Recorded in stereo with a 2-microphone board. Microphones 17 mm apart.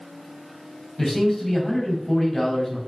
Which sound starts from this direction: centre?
A man speaking, at 1.0 s.